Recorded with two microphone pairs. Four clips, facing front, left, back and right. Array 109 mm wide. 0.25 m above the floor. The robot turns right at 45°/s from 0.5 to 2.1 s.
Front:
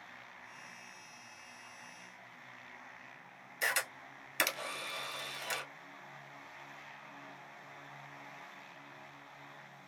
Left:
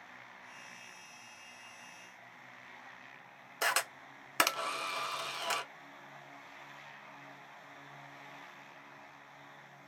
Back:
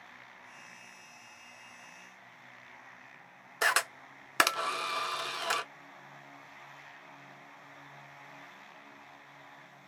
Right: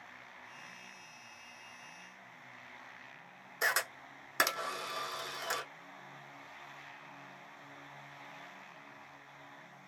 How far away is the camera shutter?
About 0.5 m.